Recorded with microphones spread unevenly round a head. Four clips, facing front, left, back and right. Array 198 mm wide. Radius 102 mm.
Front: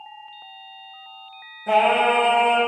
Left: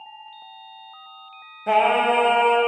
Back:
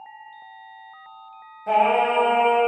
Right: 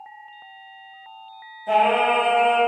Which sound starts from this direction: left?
Singing, at 1.7 s.